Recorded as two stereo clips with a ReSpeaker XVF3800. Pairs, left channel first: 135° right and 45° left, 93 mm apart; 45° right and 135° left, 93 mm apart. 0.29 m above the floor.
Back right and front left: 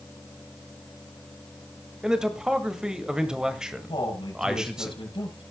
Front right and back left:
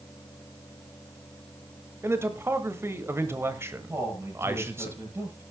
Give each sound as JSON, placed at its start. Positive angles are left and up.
{"t": 2.0, "sound": "a man speaking", "azimuth_deg": 120, "distance_m": 1.6}
{"t": 3.9, "sound": "a man speaking", "azimuth_deg": -165, "distance_m": 6.0}